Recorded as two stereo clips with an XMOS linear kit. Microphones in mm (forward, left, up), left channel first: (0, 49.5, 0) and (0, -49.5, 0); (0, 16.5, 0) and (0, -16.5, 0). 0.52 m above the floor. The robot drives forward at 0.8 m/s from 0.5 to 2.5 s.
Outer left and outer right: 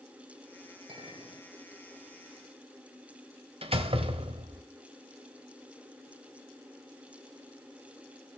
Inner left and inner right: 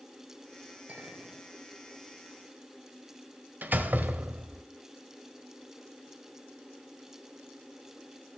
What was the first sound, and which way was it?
A clink, 60° right (ahead or behind).